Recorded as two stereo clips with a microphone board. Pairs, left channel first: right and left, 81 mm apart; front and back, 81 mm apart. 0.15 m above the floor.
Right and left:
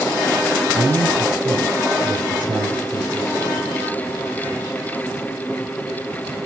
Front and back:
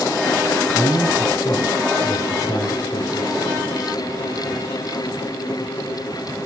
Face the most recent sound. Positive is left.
turn(degrees=25)